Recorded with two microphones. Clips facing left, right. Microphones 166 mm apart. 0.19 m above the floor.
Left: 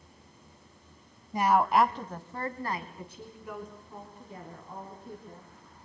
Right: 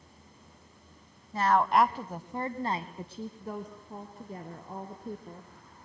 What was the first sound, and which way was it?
A woman speaking, 15° left (ahead or behind).